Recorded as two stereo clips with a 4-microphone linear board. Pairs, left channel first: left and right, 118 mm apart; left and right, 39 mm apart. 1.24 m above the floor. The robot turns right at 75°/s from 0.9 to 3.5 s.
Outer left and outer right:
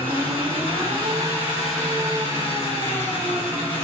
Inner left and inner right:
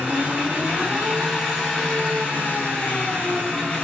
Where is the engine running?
60° right, 1.3 m; by 3.8 s 135° left, 1.3 m.